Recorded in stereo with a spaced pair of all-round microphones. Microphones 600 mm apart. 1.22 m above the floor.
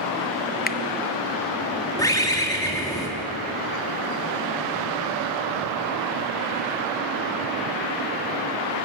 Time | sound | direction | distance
0.7 | a finger snap | 15° left (ahead or behind) | 0.6 m
2.0 | a bird | 5° left (ahead or behind) | 2 m